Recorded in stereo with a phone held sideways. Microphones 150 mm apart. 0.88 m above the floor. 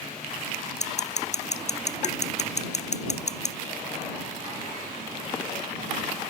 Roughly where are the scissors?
Left.